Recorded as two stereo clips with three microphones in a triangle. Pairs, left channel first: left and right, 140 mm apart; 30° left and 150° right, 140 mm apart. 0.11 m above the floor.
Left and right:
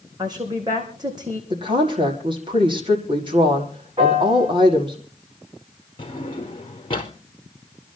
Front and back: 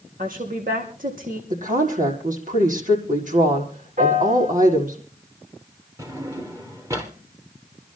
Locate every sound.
0.2 s a woman speaking: 150° right, 6.5 m
1.5 s a woman speaking: 140° right, 5.5 m
4.0 s a piano: 140° right, 8.5 m
6.0 s a drawer: 145° left, 2 m